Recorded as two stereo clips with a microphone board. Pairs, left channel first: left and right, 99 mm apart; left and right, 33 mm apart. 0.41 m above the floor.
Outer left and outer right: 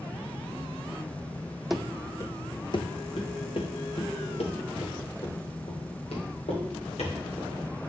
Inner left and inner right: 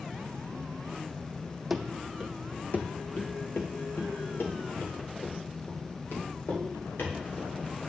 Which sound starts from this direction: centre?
Running footsteps, at 1.7 s.